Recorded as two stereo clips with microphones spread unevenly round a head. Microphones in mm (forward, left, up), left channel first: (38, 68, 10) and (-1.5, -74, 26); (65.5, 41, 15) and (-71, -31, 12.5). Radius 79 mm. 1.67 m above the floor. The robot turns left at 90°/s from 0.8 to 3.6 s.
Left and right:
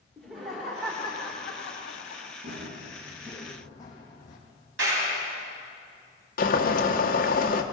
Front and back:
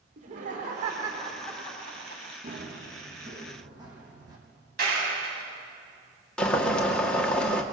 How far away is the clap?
About 9.5 m.